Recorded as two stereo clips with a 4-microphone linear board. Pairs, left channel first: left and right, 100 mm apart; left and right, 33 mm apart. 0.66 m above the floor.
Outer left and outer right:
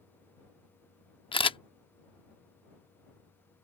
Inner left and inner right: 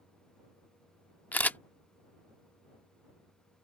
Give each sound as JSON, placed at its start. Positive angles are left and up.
{"t": 1.3, "sound": "a camera shutter", "side_deg": 60}